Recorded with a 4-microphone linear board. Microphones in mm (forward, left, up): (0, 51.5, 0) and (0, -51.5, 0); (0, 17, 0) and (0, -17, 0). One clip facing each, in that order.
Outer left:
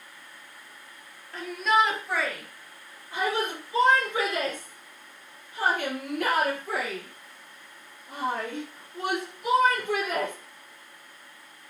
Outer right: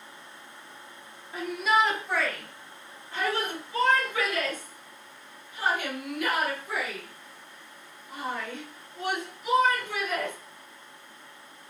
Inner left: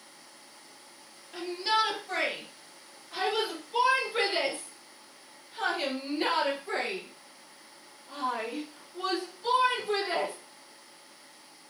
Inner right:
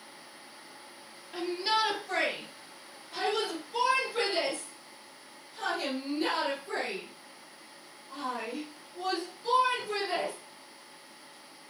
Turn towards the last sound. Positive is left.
turn(degrees=75)  # may be behind; listen again after turning